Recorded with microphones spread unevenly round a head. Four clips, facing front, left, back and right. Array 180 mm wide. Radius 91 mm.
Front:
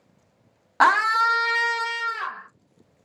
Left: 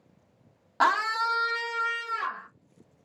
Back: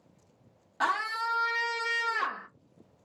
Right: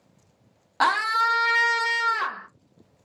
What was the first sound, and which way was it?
A scream, 5° right.